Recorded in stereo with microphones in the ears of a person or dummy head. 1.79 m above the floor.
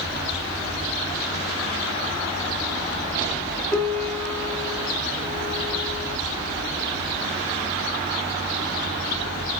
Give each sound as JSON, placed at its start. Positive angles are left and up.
{"t": 3.7, "sound": "a piano", "side_deg": 5, "distance_m": 2.5}